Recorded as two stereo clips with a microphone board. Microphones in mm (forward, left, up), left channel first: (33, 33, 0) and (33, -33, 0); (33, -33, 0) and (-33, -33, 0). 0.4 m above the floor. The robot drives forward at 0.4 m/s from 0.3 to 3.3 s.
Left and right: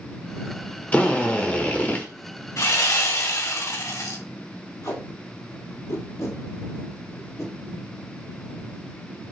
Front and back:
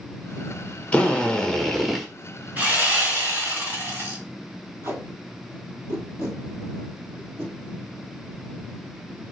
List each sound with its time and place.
0.9 s a drill: 45° left, 1.1 m; by 2.1 s 95° left, 1.1 m
2.6 s sawing: 120° left, 2 m; by 4.2 s 125° left, 2.5 m
4.8 s tape being pulled: 135° left, 2 m